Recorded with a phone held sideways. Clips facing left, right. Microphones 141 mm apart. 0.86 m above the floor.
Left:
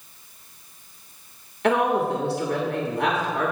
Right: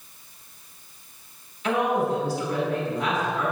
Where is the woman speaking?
65° left (ahead or behind), 1.3 m.